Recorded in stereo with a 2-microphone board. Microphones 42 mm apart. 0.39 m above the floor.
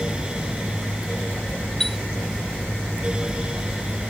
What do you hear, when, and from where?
1.8 s a chime: 5° left (ahead or behind)